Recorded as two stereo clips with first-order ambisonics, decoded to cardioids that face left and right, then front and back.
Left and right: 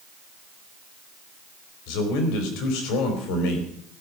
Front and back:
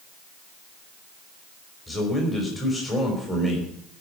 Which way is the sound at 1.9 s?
80° left.